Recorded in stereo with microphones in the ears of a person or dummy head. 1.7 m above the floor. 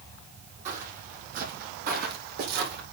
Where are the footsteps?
45° right (ahead or behind), 4 m; by 2.8 s 60° right (ahead or behind), 4 m.